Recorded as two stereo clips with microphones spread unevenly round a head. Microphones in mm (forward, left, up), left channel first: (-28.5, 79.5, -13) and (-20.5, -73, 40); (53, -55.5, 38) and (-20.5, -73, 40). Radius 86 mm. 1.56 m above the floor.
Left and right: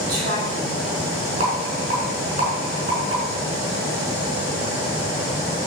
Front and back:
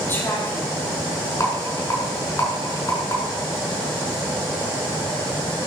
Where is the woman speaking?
50° right, 7 m.